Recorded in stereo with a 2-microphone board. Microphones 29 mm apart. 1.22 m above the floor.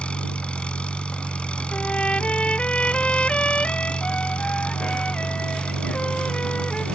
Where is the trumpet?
40° left (ahead or behind).